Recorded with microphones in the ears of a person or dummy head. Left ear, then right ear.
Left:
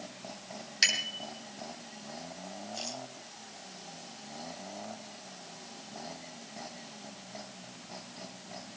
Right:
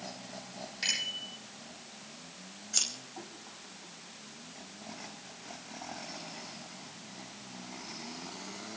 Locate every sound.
0.8 s a bicycle bell: 70° left (ahead or behind), 8.5 m
2.7 s scissors: 65° right (ahead or behind), 5 m